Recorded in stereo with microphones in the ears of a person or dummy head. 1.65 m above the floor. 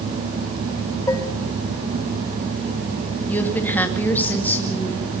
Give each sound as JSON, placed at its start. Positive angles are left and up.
{"t": 1.1, "sound": "dishes clattering", "side_deg": 15, "distance_m": 1.3}
{"t": 3.3, "sound": "a woman speaking", "side_deg": 10, "distance_m": 2.5}